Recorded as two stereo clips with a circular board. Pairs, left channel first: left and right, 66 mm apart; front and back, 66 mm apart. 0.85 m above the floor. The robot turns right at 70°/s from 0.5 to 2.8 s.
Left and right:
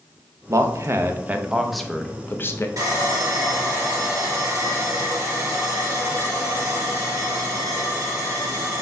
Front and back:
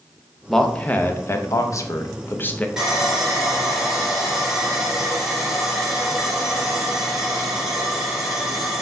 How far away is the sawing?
About 1.6 m.